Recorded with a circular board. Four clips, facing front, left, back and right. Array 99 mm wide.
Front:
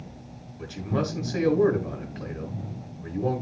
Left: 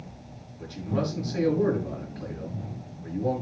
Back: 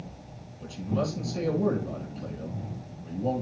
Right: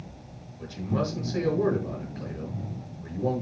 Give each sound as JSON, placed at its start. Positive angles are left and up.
{"t": 0.6, "sound": "a man speaking", "azimuth_deg": -5, "distance_m": 5.5}